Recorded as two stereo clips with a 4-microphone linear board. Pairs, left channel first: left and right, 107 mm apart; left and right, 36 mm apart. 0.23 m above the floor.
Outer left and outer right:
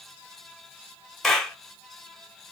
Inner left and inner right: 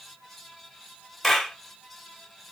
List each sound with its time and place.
1.2 s a clap: 5° left (ahead or behind), 0.9 m